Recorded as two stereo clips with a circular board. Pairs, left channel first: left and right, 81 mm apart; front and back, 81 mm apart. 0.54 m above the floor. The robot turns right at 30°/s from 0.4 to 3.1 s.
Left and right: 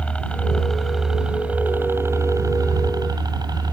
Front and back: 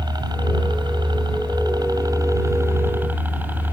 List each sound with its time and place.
0.0 s a helicopter: 165° left; by 3.7 s 115° right